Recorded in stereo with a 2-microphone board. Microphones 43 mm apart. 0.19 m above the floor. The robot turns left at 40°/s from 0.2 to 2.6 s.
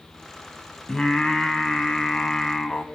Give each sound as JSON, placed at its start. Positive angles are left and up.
{"t": 0.9, "sound": "singing", "side_deg": 15, "distance_m": 1.2}